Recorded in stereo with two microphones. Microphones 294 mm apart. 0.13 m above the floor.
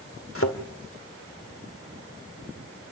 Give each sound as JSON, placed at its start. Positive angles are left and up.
{"t": 0.3, "sound": "a thud", "side_deg": 50, "distance_m": 1.9}